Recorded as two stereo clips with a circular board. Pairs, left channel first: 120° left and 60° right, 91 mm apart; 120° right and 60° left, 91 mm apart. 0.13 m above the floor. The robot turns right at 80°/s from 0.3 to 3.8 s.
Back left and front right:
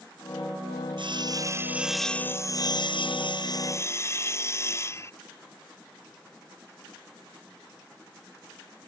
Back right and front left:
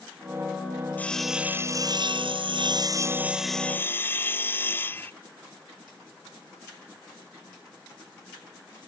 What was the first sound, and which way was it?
Sawing, 50° right.